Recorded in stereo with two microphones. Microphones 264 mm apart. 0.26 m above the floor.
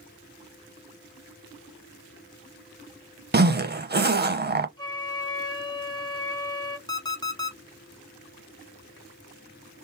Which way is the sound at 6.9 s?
15° left (ahead or behind).